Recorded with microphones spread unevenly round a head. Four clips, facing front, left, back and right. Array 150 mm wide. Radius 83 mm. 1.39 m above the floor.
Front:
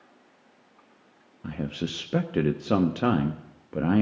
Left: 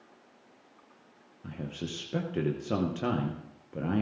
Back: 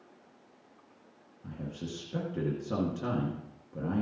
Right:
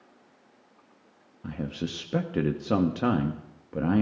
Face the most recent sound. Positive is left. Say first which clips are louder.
# right 5 dB, front 8 dB
turn(degrees=-15)